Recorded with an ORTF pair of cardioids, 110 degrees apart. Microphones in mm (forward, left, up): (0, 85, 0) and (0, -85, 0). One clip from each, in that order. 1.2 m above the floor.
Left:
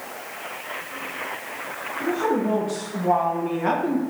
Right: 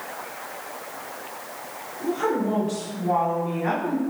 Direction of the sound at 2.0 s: 30° left.